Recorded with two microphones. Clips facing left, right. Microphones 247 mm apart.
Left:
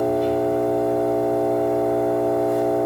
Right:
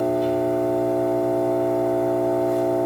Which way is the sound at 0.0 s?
65° left (ahead or behind).